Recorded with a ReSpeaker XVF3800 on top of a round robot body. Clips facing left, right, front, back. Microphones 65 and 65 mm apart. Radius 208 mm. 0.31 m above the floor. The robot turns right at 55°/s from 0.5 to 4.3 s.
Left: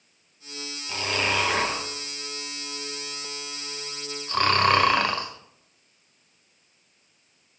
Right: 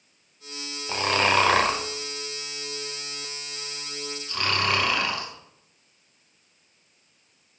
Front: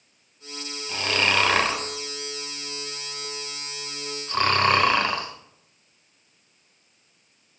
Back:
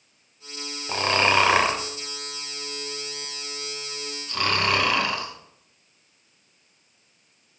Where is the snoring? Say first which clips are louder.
Right 5 dB, back 3 dB; 140° right, 1.5 m; by 7.6 s 50° left, 1.5 m.